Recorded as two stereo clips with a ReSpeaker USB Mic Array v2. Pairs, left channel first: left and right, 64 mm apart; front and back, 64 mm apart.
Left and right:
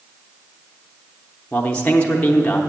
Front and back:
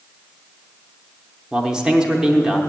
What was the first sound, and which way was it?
A man speaking, 115° left.